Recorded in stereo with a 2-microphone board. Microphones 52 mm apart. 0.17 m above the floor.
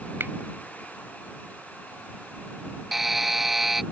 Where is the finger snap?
45° right (ahead or behind).